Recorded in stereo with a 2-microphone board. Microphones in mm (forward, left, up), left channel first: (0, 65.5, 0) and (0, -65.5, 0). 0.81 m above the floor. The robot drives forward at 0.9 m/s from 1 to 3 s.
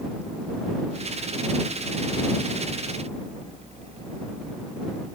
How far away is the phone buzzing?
No phone buzzing in this recording.